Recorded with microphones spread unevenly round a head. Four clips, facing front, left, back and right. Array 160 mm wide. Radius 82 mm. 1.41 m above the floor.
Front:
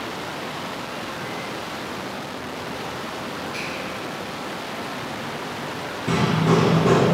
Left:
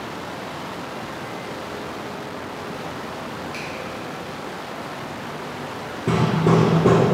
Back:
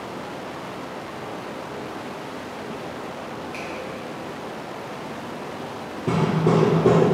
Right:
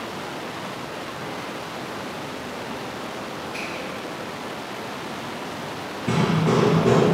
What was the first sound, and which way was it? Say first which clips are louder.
A finger snap: even, front 1 dB; 130° left.